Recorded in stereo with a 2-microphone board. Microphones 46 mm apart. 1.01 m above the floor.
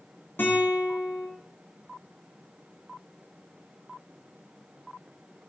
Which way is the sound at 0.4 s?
50° left (ahead or behind).